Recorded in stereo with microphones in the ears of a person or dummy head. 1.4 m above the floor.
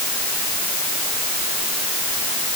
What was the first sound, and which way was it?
Only background noise.